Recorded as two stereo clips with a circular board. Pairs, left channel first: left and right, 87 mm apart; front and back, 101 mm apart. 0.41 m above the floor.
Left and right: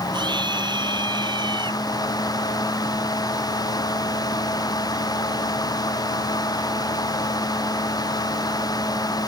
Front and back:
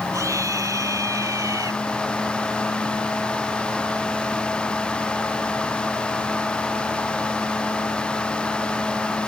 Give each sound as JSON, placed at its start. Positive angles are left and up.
{"t": 0.1, "sound": "a scream", "azimuth_deg": -120}